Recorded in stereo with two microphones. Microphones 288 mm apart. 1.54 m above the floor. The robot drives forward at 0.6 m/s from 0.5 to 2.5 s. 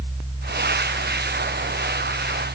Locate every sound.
Only background noise.